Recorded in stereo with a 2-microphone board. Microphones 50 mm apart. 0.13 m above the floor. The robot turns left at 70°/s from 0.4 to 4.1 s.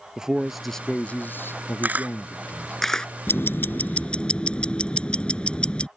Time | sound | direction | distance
0.2 | a man speaking | 165° right | ?
1.8 | a camera shutter | 40° right (ahead or behind) | ?
3.3 | ticking | 90° left | ?